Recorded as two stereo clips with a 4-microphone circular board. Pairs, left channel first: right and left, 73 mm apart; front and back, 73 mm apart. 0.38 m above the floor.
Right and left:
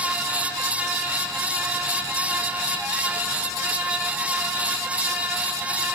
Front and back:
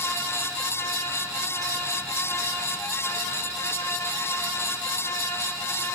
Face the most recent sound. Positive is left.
No sound to turn to.